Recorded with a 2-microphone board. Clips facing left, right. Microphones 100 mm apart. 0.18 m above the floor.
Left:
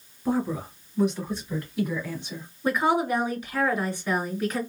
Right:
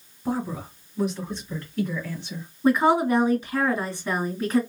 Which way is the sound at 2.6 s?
25° right (ahead or behind).